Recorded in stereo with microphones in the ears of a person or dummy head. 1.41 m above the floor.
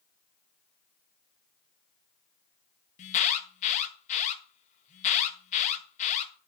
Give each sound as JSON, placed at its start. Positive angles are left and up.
{"t": 3.0, "sound": "an alarm", "side_deg": 35, "distance_m": 1.5}